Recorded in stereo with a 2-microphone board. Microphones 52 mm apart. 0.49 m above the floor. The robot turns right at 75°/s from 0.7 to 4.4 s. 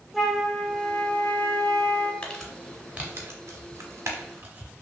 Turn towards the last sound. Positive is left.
turn(degrees=-40)  # may be behind; listen again after turning